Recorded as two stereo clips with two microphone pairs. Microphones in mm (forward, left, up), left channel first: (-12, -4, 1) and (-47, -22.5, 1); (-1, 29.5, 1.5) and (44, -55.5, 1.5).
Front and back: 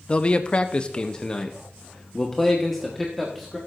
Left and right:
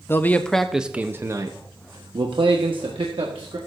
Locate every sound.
0.1 s a man speaking: 70° left, 0.7 m; by 3.6 s 60° right, 1.6 m